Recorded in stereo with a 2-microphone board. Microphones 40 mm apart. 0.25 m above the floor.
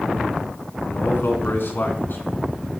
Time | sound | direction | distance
0.9 | a man speaking | 60° left (ahead or behind) | 2.5 m